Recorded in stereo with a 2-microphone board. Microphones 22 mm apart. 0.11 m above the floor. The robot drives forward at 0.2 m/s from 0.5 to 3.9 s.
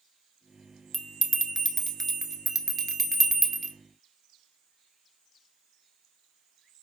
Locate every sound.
0.9 s a bell: 10° left (ahead or behind), 0.6 m; by 3.7 s 5° left (ahead or behind), 0.9 m